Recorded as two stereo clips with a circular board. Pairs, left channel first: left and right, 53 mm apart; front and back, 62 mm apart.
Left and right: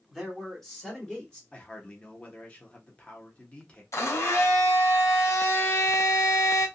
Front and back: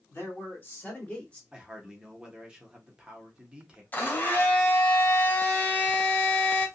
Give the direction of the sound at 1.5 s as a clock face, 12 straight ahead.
8 o'clock.